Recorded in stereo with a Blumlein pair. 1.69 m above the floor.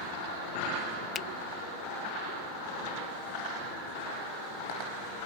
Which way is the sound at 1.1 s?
25° left.